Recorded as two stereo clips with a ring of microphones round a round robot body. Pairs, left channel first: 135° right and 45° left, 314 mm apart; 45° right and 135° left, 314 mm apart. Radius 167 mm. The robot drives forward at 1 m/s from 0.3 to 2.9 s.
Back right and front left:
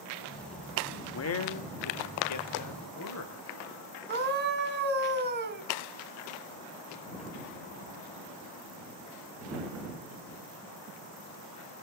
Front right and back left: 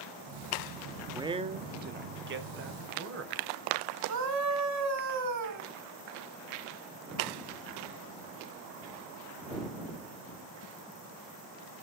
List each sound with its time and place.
1.1 s a man speaking: 145° right, 0.8 m; by 3.6 s 175° right, 2.5 m
4.1 s a scream: 100° left, 2.5 m